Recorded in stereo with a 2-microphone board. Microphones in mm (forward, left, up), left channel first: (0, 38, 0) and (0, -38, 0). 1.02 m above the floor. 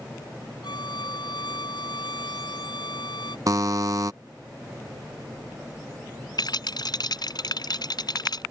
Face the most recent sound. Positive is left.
turn(degrees=60)  # may be behind; listen again after turning